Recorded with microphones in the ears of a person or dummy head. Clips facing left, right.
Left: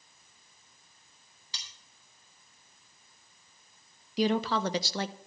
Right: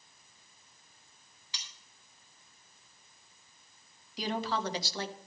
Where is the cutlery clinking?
35° left (ahead or behind), 3.5 m.